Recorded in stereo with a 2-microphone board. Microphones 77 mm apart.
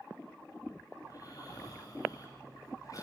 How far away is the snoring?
About 5.5 m.